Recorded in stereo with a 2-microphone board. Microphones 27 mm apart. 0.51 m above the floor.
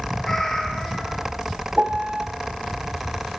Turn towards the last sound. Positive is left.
turn(degrees=-50)  # may be behind; listen again after turning